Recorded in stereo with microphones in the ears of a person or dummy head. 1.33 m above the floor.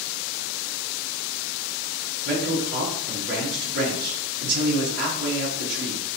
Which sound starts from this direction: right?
A man speaking, at 2.2 s.